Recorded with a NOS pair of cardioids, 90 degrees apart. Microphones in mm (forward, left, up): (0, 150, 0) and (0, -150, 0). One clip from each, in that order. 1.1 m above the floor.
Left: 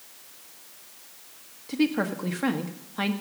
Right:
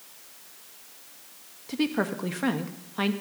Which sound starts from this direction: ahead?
A woman speaking, at 1.7 s.